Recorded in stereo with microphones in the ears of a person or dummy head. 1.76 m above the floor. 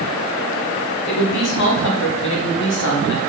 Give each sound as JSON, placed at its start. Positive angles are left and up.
{"t": 1.1, "sound": "a woman speaking", "side_deg": 70, "distance_m": 1.6}